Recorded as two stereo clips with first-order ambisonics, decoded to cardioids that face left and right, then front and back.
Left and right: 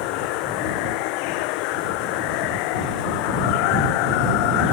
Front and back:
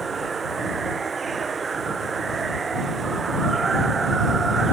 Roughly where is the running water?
Left.